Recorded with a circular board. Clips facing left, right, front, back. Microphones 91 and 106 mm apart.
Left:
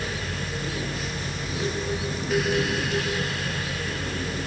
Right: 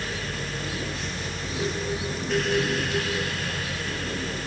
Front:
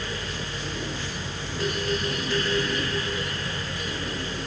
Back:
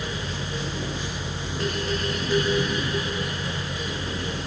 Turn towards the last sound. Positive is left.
No sound to turn to.